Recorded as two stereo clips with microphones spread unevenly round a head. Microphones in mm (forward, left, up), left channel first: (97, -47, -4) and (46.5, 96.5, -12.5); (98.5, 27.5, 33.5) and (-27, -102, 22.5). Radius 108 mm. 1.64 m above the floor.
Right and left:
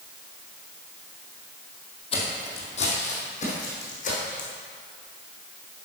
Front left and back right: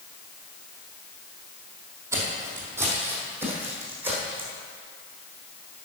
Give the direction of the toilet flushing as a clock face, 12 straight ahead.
I don't hear a toilet flushing.